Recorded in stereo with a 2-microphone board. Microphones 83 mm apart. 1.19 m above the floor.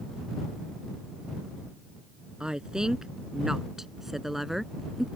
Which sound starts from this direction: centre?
A woman speaking, at 2.4 s.